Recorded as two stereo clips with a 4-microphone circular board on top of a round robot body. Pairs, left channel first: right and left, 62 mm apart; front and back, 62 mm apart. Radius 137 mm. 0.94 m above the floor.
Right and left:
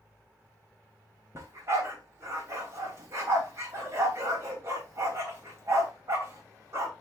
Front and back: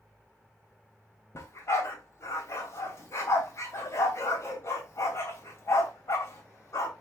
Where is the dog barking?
45° left, 3 m.